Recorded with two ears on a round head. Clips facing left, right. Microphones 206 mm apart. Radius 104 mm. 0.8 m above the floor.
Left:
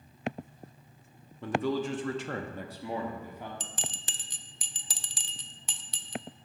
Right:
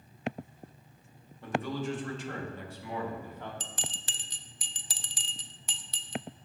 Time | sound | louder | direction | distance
1.4 | a man speaking | left 4 dB | 65° left (ahead or behind) | 1.5 m
3.6 | a bell | left 1 dB | 75° left (ahead or behind) | 0.6 m